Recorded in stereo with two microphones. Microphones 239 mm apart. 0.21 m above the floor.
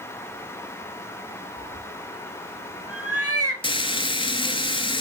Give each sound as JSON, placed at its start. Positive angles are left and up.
{"t": 1.6, "sound": "a cat meowing", "side_deg": -65, "distance_m": 3.0}
{"t": 3.6, "sound": "frying", "side_deg": 20, "distance_m": 0.7}